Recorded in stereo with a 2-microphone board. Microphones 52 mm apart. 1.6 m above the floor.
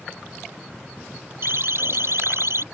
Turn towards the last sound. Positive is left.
turn(degrees=-65)  # may be behind; listen again after turning